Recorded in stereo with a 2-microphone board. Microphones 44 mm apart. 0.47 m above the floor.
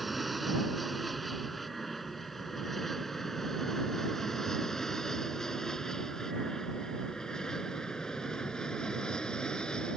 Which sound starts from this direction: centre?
An aircraft, at 0.0 s.